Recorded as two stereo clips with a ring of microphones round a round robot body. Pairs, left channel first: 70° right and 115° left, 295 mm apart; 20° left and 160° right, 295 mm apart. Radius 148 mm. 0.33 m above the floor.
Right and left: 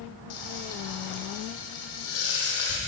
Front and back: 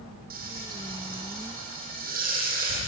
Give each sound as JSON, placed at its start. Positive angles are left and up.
{"t": 0.3, "sound": "frying", "azimuth_deg": -95, "distance_m": 3.5}